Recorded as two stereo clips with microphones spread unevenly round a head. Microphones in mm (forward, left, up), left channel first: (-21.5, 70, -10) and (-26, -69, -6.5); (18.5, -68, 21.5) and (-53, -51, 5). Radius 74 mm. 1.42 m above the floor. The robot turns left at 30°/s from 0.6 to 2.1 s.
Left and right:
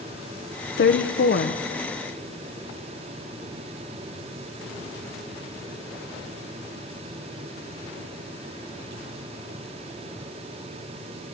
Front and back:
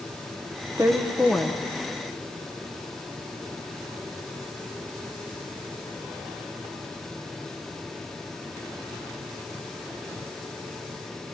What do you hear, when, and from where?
0.8 s a woman speaking: 95° left, 0.7 m; by 1.6 s 70° left, 0.7 m